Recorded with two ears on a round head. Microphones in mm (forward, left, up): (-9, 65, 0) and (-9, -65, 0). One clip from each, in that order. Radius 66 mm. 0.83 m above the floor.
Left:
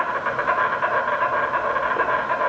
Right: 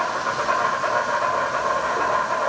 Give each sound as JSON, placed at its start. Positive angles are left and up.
{"t": 0.0, "sound": "an insect", "side_deg": 55, "distance_m": 1.7}